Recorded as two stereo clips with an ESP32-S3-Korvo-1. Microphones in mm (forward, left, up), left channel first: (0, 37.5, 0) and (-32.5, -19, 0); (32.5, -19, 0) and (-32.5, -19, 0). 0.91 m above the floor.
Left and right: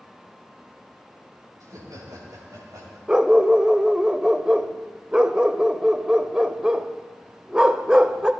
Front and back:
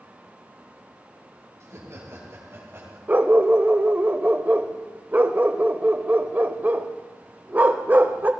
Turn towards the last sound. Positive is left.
turn(degrees=180)